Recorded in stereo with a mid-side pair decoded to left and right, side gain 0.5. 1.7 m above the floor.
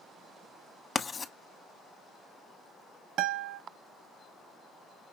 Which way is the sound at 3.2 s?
70° right.